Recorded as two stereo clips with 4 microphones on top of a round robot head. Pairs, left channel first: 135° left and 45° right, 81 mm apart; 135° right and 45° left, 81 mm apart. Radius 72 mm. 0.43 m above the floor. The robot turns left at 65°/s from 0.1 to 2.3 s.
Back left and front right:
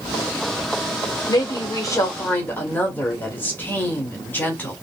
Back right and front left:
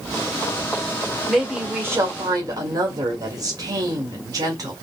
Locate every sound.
1.3 s a woman speaking: 140° left, 1.8 m; by 4.7 s 70° left, 1.8 m